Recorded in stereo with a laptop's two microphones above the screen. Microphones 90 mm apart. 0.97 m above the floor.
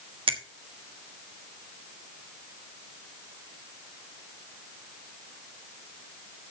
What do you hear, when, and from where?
0.3 s a finger snap: 80° right, 1.3 m